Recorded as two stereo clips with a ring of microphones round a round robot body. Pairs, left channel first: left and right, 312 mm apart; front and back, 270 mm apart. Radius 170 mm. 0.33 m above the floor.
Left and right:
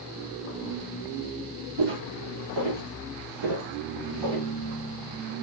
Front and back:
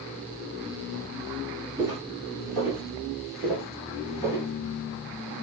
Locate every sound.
1.8 s footsteps: 95° right, 2 m; by 4.5 s 85° right, 3.5 m